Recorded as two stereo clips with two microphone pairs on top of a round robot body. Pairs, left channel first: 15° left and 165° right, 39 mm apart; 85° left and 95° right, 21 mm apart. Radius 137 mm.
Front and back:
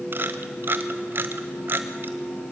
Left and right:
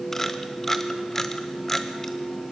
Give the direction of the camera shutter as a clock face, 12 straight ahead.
7 o'clock.